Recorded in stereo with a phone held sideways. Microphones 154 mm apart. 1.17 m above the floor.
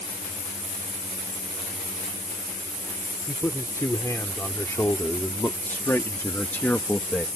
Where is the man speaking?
20° left (ahead or behind); by 7.3 s 10° left (ahead or behind).